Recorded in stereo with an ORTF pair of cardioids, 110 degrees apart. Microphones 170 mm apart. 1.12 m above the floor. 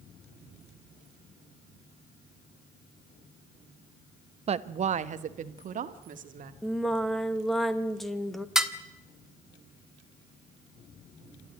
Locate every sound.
4.5 s a woman speaking: 35° right, 0.9 m; by 6.5 s 50° right, 2.5 m
6.6 s singing: straight ahead, 1.4 m
8.6 s dishes clattering: straight ahead, 1.4 m